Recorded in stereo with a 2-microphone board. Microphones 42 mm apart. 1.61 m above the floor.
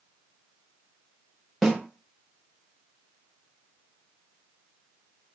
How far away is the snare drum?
About 0.8 m.